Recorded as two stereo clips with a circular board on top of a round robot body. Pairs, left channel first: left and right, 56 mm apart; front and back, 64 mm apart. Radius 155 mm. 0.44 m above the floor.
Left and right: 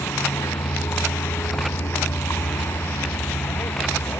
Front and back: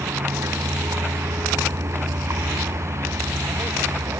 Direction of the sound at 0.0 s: 135° left.